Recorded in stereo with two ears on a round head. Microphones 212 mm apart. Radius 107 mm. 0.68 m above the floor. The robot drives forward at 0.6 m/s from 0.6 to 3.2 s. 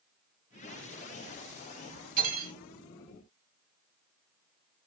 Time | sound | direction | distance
2.2 | cutlery clinking | 45° right (ahead or behind) | 2 m